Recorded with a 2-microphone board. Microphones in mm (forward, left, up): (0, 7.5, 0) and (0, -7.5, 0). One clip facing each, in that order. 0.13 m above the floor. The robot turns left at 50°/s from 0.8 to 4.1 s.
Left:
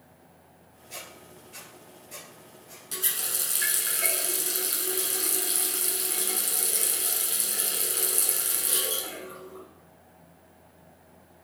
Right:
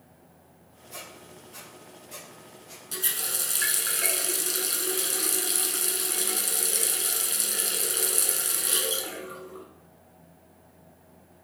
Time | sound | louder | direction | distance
0.9 | a squeak | even | 55° left (ahead or behind) | 1.5 m
2.9 | a running tap | right 1 dB | 5° left (ahead or behind) | 0.9 m